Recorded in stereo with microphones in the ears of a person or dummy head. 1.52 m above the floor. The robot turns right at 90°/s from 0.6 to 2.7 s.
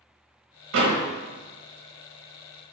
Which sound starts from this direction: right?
A door slam, at 0.7 s.